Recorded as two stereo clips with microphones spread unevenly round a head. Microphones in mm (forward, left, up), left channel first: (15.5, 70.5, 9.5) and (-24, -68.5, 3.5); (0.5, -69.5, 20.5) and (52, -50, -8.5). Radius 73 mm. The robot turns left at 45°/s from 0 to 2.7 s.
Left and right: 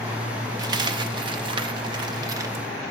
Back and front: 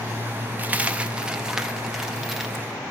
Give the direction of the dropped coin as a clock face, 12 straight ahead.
2 o'clock.